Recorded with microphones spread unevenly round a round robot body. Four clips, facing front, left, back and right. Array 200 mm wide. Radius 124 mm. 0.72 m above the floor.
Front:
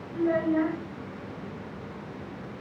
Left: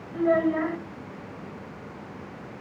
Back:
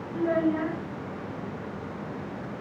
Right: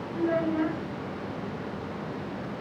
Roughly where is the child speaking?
Behind left.